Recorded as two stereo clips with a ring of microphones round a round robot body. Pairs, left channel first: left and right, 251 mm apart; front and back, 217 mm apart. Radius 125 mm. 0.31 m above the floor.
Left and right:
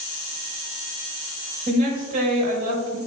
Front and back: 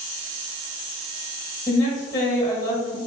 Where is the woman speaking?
60° right, 1.0 m.